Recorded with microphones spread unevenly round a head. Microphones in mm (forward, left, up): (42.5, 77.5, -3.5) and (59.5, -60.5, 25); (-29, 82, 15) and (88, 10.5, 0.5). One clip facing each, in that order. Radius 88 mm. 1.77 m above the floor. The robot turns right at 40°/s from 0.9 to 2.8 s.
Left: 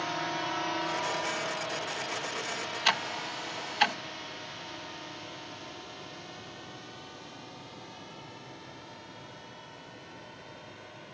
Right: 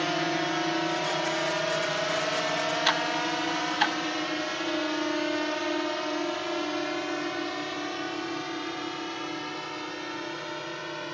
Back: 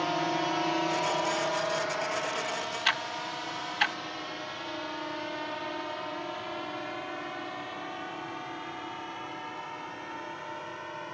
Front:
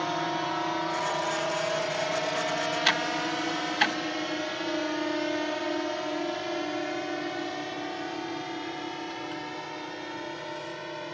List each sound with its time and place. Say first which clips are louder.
0.0 s a drone: right 6 dB, even; 125° right; by 11.1 s 100° right
2.9 s ticking: right 6 dB, front 6 dB; 15° left